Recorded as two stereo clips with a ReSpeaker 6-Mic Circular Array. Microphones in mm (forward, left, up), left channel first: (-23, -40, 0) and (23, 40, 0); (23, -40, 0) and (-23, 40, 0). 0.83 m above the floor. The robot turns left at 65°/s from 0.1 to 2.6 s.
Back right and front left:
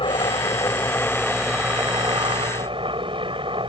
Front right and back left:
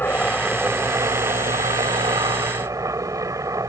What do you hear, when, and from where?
0.0 s a helicopter: 130° right; by 3.7 s 70° left